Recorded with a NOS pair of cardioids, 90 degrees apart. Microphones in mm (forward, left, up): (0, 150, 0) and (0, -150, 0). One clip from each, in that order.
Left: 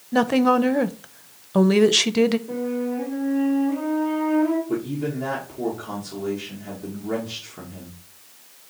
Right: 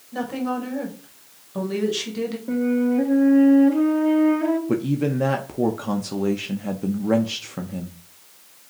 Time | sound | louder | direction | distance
0.1 | a woman speaking | left 9 dB | 50° left | 0.6 m
2.5 | a flute | right 4 dB | 70° right | 2 m
4.7 | a man speaking | right 3 dB | 50° right | 0.7 m